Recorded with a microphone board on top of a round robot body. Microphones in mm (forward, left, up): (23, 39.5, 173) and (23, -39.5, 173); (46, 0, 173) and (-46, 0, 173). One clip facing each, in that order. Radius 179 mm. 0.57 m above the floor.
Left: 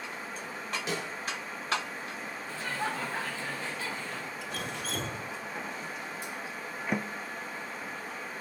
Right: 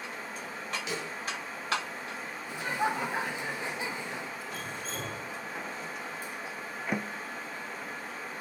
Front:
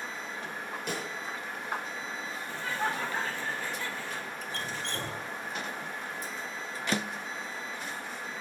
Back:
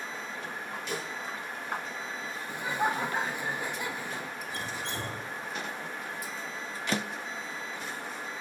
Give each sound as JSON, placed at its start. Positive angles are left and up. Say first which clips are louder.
{"t": 0.9, "sound": "a snare drum", "louder": "left 3 dB, even", "azimuth_deg": 40, "distance_m": 9.0}
{"t": 2.5, "sound": "laughter", "louder": "right 4 dB, back 3 dB", "azimuth_deg": -130, "distance_m": 1.0}
{"t": 4.4, "sound": "dripping", "louder": "left 1 dB, even", "azimuth_deg": 100, "distance_m": 2.5}